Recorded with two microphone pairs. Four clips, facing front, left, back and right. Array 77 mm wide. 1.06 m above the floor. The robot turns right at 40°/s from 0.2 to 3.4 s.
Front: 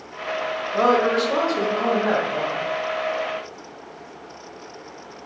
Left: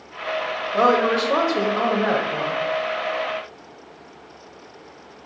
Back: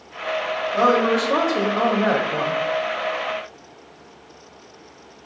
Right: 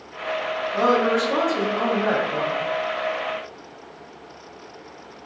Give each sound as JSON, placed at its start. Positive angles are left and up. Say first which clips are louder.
{"t": 0.7, "sound": "a woman speaking", "louder": "left 2 dB, even", "azimuth_deg": 85, "distance_m": 0.7}